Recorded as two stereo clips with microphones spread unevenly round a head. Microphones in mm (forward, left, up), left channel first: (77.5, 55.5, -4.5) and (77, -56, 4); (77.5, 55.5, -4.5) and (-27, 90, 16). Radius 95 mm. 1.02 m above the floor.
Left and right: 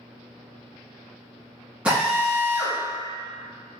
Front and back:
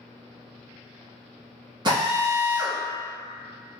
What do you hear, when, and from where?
1.9 s a drill: 170° right, 0.8 m